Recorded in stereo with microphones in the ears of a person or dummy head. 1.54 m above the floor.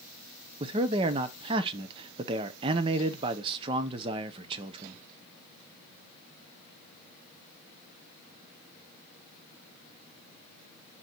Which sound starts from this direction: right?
A man speaking, at 0.6 s.